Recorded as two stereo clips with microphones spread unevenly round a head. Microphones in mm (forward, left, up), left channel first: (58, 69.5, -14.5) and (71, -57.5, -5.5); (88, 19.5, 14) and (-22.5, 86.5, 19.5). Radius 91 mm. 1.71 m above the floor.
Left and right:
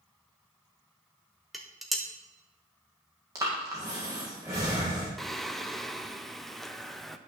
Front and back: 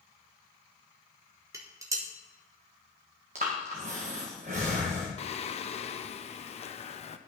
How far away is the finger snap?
I don't hear a finger snap.